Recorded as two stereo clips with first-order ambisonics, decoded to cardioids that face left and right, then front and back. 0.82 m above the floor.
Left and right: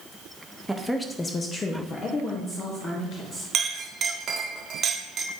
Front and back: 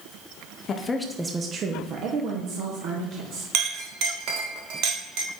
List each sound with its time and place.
0.7 s a woman speaking: 5° right, 0.6 m; by 3.4 s 150° left, 1.7 m
3.5 s a clink: 150° right, 1.0 m